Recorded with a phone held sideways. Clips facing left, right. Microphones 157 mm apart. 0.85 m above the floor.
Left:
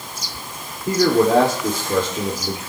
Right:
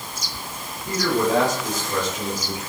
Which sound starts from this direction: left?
A man speaking, at 0.9 s.